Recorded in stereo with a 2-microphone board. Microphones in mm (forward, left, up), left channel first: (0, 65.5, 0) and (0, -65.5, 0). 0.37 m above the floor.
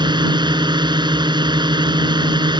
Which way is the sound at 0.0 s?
35° right (ahead or behind).